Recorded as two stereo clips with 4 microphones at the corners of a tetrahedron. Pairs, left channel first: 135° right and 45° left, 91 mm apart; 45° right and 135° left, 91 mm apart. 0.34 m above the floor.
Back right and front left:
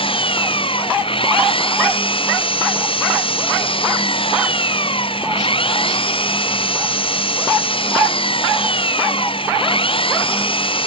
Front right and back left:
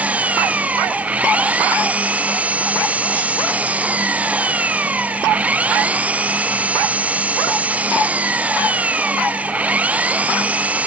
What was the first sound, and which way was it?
An engine running, 150° right.